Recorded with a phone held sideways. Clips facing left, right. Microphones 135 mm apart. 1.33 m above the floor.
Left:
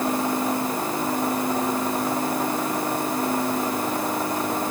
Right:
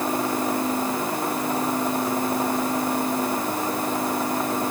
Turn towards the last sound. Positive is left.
No sound to turn to.